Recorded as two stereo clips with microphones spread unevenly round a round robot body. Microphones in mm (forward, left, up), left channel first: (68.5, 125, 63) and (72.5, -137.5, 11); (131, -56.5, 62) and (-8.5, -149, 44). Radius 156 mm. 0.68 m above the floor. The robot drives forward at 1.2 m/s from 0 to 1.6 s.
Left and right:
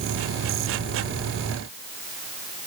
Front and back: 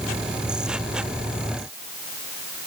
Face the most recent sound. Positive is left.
No sound to turn to.